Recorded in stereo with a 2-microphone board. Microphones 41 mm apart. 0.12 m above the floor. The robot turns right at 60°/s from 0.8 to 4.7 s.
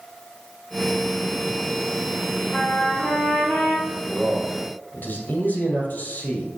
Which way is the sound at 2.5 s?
40° left.